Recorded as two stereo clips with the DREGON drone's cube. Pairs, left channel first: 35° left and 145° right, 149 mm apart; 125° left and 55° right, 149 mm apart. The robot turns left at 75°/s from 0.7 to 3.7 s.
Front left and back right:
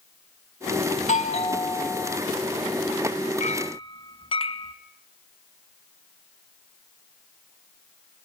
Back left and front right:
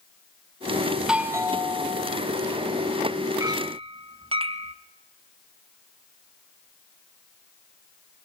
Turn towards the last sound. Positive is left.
turn(degrees=-10)